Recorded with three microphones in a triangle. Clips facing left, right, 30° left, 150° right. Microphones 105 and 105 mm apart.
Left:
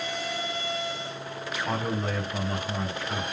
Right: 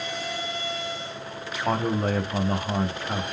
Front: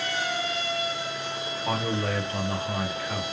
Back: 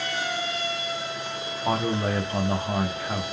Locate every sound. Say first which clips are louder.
1.6 s a man speaking: right 6 dB, back 3 dB; 100° right, 1.0 m